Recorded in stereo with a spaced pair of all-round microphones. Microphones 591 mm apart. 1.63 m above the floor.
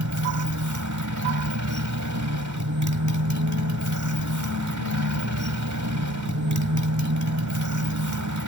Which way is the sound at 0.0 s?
30° right (ahead or behind).